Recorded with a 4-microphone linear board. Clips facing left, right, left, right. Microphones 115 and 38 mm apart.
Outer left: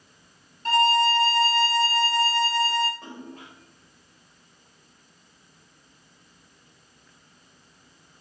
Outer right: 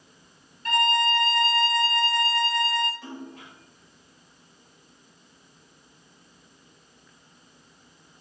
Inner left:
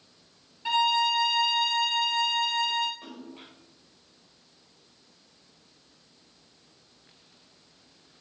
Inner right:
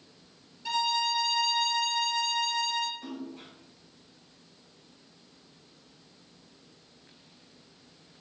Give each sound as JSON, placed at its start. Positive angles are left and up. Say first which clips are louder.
{"t": 0.7, "sound": "a violin", "louder": "outer left 3 dB, inner left 5 dB", "side_deg": 35, "distance_m": 0.6}
{"t": 3.0, "sound": "a splash", "louder": "outer right 1 dB, inner right 3 dB", "side_deg": 45, "distance_m": 3.0}